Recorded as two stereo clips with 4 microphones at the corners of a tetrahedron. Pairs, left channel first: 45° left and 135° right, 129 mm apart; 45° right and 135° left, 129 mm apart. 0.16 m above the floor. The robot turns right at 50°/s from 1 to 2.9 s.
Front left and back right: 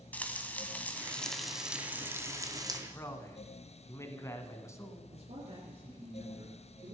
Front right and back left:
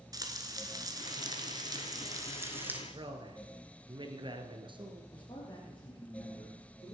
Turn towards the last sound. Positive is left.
turn(degrees=-100)